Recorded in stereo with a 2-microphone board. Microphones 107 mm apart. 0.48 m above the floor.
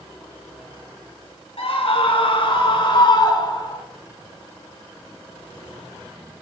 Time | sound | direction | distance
1.6 | a scream | 65° left (ahead or behind) | 3 m